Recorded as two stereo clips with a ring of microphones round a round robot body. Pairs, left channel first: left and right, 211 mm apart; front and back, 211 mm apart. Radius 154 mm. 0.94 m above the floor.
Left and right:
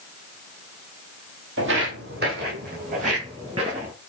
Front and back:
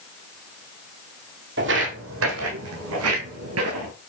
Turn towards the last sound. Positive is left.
turn(degrees=-160)